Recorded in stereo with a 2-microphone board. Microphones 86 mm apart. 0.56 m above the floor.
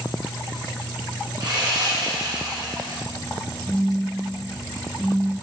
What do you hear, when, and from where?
1.4 s sawing: 60° right (ahead or behind), 1.4 m
3.7 s a phone buzzing: 45° right (ahead or behind), 1.3 m